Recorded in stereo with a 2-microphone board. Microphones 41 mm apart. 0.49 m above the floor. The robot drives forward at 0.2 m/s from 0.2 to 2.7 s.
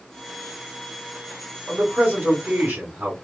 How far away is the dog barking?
I don't hear a dog barking.